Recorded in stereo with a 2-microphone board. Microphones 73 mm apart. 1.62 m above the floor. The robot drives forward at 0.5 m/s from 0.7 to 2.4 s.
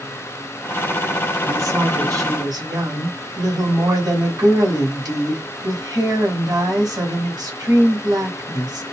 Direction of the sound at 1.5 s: 50° right (ahead or behind).